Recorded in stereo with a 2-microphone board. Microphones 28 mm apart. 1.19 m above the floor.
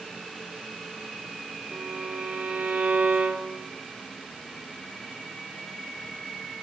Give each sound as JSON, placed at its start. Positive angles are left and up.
{"t": 1.7, "sound": "a violin", "side_deg": -60, "distance_m": 0.8}